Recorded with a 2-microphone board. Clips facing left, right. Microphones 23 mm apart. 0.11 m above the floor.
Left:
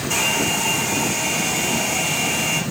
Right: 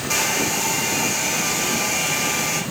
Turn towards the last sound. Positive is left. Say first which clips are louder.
# left 1 dB
turn(degrees=-65)  # may be behind; listen again after turning